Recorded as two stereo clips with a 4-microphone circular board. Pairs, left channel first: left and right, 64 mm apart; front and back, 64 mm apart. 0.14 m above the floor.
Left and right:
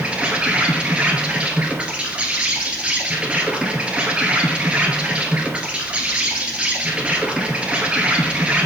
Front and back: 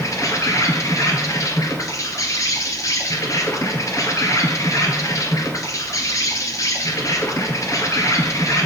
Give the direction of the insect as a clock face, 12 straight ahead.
1 o'clock.